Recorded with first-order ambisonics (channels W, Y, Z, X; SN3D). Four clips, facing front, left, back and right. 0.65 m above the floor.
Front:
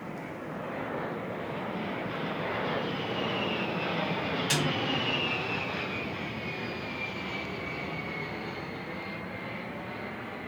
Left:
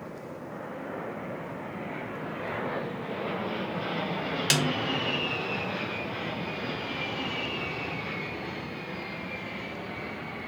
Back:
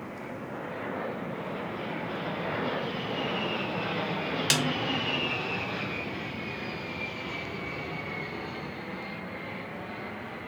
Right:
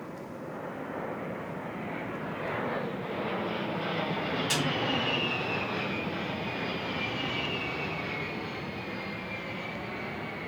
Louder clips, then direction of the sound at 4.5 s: Left 5 dB, back 3 dB; 135° left.